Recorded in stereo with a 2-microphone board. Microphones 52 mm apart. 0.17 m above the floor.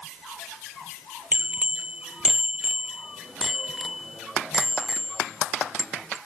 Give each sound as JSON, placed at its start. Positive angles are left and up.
{"t": 1.3, "sound": "a bicycle bell", "side_deg": -25}